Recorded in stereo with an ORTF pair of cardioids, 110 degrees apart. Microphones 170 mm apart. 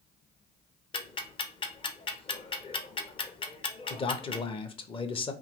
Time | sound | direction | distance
0.9 | ticking | 30° left | 0.7 m
3.9 | a man speaking | 35° left | 0.7 m